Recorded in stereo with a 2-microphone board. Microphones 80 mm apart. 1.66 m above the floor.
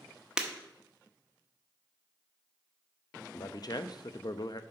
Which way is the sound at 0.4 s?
10° right (ahead or behind).